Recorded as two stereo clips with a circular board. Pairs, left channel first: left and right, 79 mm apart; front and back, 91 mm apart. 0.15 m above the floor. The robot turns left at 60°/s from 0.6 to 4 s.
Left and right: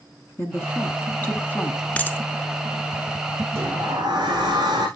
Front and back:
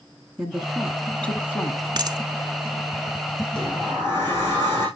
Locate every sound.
0.4 s a woman speaking: 100° left, 1.3 m; by 1.9 s 25° left, 1.3 m
2.0 s a dropped coin: 160° left, 0.5 m; by 2.2 s 140° left, 0.5 m
3.5 s a sliding door: 40° right, 7.5 m; by 4.9 s 65° right, 7.5 m